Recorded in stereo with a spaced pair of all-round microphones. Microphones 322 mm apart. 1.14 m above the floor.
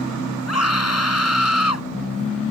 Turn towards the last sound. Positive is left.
turn(degrees=50)  # may be behind; listen again after turning